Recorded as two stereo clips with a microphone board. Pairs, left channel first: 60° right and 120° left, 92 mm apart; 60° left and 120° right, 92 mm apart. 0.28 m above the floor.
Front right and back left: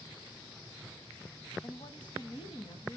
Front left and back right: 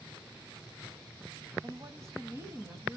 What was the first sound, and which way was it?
A woman speaking, 75° right.